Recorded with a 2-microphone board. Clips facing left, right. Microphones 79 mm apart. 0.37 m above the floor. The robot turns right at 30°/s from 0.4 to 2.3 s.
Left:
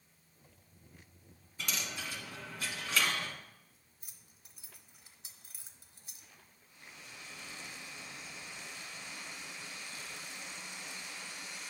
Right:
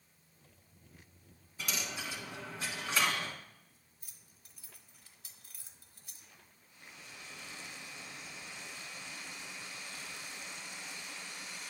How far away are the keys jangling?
About 0.9 m.